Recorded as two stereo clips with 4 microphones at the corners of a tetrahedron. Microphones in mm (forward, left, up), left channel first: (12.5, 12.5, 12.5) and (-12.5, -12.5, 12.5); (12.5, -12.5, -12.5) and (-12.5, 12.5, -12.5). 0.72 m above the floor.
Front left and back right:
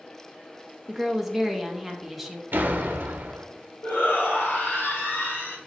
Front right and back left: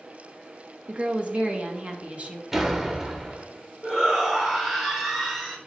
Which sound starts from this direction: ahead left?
A shout, at 3.8 s.